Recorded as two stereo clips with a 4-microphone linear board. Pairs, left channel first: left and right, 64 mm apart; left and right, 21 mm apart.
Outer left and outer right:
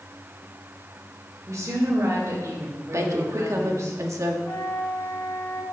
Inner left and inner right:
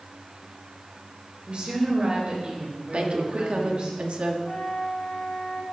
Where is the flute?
35° left (ahead or behind), 1.5 m.